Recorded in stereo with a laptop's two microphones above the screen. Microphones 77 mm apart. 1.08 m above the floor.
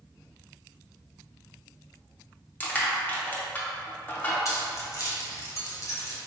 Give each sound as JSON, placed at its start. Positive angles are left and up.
{"t": 2.6, "sound": "crushing", "side_deg": 25, "distance_m": 0.7}
{"t": 4.5, "sound": "keys jangling", "side_deg": 45, "distance_m": 0.6}